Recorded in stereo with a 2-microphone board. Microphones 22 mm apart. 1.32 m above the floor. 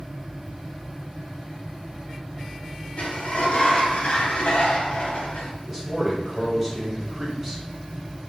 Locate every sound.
3.0 s a sliding door: 60° left (ahead or behind), 0.6 m
5.7 s a man speaking: 15° right (ahead or behind), 0.9 m